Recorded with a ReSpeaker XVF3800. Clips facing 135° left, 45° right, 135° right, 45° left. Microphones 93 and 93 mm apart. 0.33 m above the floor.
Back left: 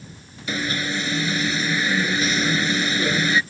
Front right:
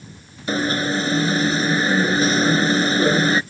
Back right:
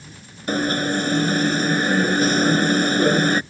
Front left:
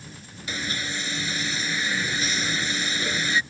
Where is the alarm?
95° right.